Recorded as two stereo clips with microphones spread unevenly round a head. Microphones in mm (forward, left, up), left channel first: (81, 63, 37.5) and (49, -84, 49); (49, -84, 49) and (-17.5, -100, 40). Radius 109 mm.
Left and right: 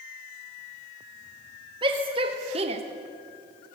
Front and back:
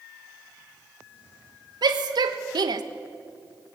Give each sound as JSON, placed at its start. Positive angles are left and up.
{"t": 1.8, "sound": "a shout", "azimuth_deg": -170, "distance_m": 1.6}